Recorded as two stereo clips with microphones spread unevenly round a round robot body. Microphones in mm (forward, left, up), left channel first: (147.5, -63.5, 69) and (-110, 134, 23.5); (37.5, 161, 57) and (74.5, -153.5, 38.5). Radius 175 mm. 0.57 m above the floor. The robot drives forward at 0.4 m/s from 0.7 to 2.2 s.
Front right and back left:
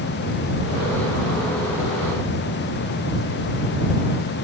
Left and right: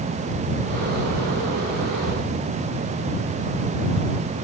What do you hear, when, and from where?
Only background noise.